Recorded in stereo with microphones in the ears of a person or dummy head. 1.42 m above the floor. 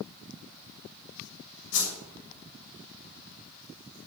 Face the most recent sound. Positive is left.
turn(degrees=80)